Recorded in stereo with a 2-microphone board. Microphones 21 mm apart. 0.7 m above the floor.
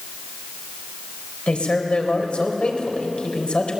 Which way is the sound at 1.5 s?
60° left (ahead or behind).